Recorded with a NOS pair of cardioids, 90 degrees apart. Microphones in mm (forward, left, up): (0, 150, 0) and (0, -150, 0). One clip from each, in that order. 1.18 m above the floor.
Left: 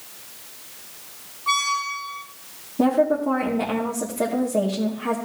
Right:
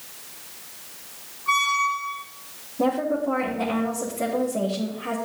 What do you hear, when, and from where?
1.5 s a squeak: 40° left, 2.5 m
2.8 s a woman speaking: 50° left, 2.5 m